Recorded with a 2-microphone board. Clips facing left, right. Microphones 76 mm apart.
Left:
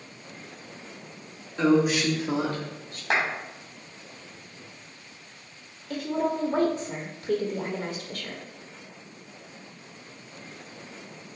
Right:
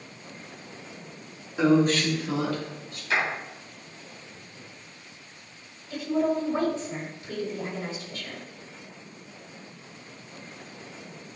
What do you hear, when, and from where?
1.6 s a woman speaking: 10° right (ahead or behind), 1.3 m; by 3.0 s 45° left (ahead or behind), 2.5 m
3.1 s a clap: 75° left (ahead or behind), 3.5 m
5.9 s a woman speaking: 55° left (ahead or behind), 1.4 m